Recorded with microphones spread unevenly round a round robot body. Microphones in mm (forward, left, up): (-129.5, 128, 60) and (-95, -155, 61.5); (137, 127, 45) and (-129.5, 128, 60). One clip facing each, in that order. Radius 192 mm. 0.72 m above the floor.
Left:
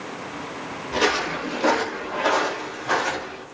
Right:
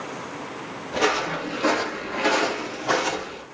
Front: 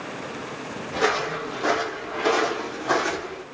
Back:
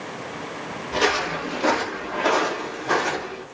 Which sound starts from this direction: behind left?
Footsteps, at 0.9 s.